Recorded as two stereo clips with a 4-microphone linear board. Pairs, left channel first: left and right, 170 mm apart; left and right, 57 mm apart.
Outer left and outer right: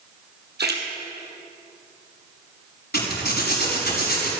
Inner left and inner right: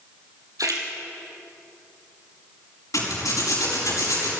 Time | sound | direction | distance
0.6 | a splash | 80° right | 3 m
2.9 | a zipper | 75° left (ahead or behind) | 5.5 m